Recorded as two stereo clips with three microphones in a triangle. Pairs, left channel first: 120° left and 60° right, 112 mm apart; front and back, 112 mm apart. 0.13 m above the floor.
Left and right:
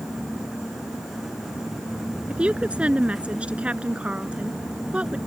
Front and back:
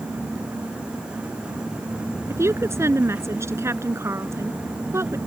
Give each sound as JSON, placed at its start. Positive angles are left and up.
{"t": 2.3, "sound": "a woman speaking", "azimuth_deg": -135}